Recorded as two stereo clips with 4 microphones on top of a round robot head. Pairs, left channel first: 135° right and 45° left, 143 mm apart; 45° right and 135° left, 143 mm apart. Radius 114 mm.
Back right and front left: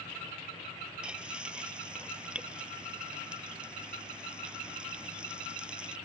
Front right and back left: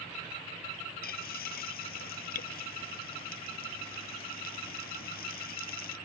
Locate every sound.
1.0 s frying: 40° right